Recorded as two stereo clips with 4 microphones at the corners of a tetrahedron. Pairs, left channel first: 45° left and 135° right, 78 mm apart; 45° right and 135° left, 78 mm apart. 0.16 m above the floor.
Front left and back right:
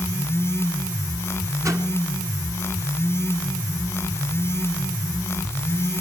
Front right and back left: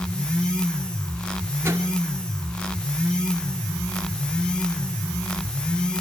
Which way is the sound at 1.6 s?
175° right.